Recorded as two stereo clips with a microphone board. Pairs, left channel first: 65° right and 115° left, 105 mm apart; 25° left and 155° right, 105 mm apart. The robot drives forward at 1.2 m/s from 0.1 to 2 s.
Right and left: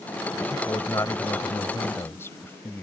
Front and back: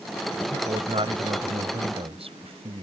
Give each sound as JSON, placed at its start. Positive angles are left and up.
{"t": 0.5, "sound": "a man speaking", "azimuth_deg": -125}